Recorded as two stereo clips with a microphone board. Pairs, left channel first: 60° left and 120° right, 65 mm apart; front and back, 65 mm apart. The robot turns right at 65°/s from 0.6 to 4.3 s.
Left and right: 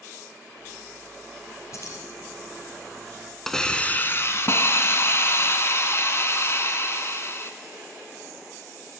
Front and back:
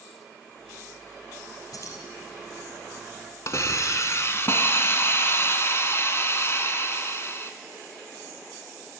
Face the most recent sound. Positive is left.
turn(degrees=30)